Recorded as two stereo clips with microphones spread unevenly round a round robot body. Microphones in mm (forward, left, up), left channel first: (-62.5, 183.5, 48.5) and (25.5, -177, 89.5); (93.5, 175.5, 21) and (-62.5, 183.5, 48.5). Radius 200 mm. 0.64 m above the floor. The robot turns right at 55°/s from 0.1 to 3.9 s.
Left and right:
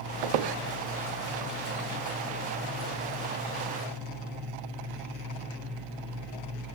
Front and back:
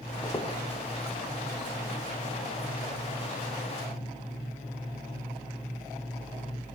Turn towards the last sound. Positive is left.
turn(degrees=120)